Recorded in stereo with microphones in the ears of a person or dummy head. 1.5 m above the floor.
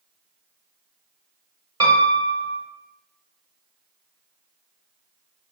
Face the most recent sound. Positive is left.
turn(degrees=-20)  # may be behind; listen again after turning